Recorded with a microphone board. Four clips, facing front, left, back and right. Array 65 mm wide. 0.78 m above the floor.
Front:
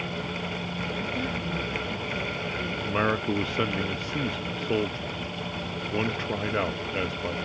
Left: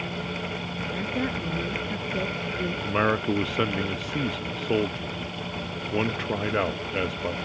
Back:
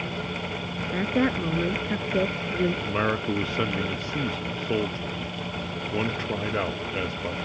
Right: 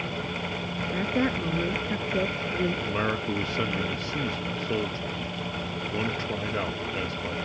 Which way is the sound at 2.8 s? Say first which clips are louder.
Left 4 dB, even; 85° left.